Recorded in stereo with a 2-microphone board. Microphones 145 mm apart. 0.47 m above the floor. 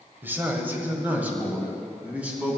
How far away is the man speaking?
About 1.7 m.